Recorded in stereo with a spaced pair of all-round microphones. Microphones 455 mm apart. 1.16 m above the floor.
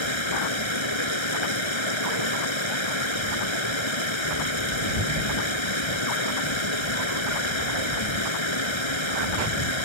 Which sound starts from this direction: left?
Running water, at 0.0 s.